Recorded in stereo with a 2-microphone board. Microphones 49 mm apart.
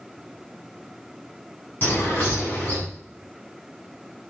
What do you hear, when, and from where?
1.8 s a bird: 40° left (ahead or behind), 5.5 m